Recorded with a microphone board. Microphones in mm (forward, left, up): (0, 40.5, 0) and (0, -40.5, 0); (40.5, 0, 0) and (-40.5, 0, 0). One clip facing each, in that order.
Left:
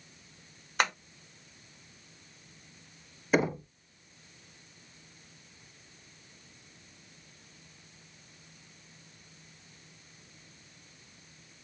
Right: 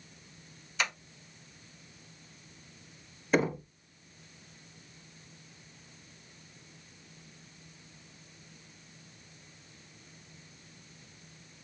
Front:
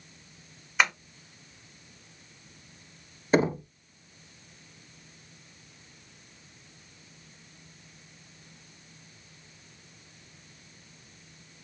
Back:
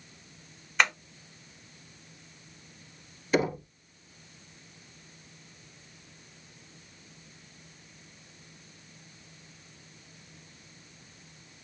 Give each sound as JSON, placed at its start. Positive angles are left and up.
{"t": 0.8, "sound": "tapping", "azimuth_deg": 85, "distance_m": 0.9}
{"t": 3.3, "sound": "knocking", "azimuth_deg": 10, "distance_m": 0.9}